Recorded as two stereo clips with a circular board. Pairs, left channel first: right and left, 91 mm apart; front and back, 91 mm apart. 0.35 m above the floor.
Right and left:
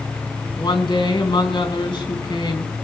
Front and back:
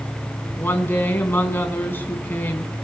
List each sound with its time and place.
0.6 s a woman speaking: 65° right, 3 m